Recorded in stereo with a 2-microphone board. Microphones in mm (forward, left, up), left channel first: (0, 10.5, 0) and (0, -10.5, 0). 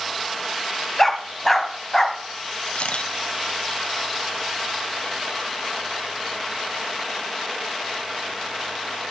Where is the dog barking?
15° left (ahead or behind), 1.9 m.